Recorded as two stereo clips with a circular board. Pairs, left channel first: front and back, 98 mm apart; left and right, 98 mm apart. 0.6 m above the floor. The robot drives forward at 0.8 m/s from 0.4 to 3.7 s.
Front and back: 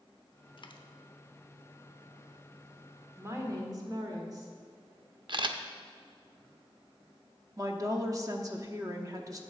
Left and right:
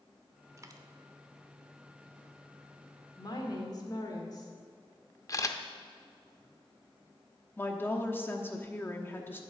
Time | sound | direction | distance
0.6 | a dropped coin | 35° right | 0.8 m
3.2 | a woman speaking | 120° left | 1.5 m
5.3 | a camera shutter | 145° left | 0.6 m
7.6 | a woman speaking | 150° left | 0.9 m